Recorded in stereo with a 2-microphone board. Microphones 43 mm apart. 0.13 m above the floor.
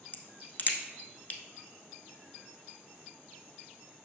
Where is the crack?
45° left (ahead or behind), 1.0 m.